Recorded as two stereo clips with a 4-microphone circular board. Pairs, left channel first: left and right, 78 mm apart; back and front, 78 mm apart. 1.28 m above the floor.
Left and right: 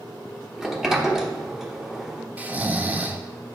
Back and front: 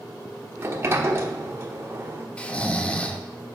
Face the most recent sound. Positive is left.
turn(degrees=-125)